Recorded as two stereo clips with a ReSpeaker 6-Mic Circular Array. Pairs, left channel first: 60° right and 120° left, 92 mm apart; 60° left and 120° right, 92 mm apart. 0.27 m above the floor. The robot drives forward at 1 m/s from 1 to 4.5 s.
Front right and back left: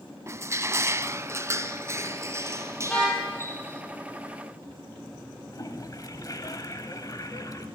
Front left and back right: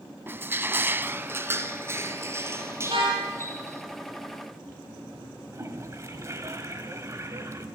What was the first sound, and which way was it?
Crushing, 175° left.